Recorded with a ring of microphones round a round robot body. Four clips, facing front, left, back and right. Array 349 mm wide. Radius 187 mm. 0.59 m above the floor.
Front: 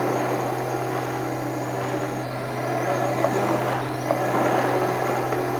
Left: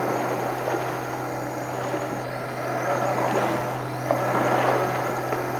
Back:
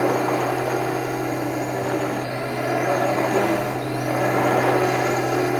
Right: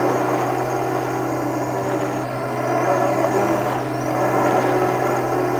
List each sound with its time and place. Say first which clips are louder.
0.0 s a drone: right 6 dB, back 3 dB; 105° right